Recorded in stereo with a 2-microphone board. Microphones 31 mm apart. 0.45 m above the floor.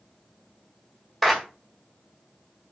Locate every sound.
1.2 s a clap: 5° left (ahead or behind), 1.0 m